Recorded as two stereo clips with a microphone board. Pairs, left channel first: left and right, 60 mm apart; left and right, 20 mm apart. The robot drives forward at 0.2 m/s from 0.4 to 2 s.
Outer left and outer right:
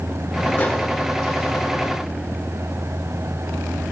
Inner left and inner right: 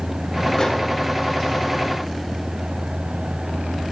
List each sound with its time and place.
0.6 s a microwave: 30° left (ahead or behind), 7 m